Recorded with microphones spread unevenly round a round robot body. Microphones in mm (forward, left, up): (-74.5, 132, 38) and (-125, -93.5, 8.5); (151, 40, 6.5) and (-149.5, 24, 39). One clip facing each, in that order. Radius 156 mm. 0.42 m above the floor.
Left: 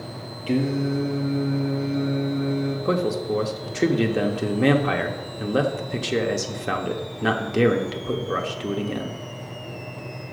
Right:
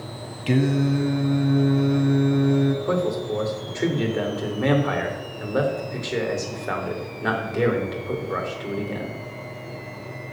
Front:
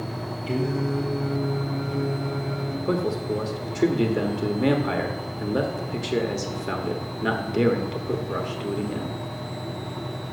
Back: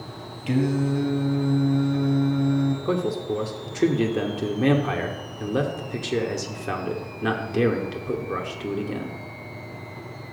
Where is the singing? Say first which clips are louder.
Right 2 dB, back 4 dB; 125° right, 1.2 m.